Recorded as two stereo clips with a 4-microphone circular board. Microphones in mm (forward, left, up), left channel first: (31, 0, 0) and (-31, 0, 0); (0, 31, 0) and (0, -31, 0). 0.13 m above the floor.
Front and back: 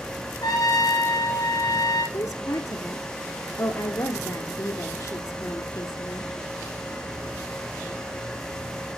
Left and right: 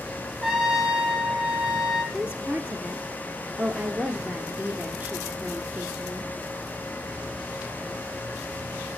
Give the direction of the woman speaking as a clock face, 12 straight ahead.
1 o'clock.